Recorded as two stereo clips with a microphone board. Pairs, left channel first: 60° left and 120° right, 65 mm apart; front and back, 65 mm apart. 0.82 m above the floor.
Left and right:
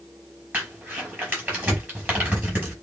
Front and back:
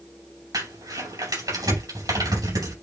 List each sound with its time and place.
0.5 s crumpling: straight behind, 5 m